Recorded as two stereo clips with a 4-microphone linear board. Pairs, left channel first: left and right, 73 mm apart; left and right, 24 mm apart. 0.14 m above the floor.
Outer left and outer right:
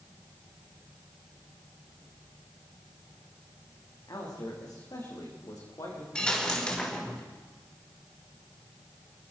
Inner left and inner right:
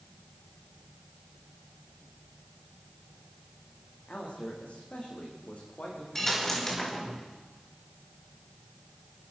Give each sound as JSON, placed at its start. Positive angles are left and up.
{"t": 4.1, "sound": "a man speaking", "side_deg": 55, "distance_m": 7.5}
{"t": 6.2, "sound": "a dropped coin", "side_deg": 10, "distance_m": 4.0}